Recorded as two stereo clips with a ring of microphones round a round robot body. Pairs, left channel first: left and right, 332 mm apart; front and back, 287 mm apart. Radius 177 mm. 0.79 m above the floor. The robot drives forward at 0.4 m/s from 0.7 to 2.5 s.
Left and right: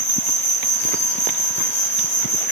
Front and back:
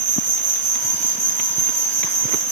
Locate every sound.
0.0 s an insect: 170° left, 2.0 m